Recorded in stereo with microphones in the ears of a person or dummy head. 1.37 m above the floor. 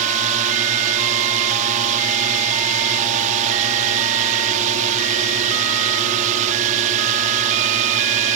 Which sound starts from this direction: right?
A drone, at 0.0 s.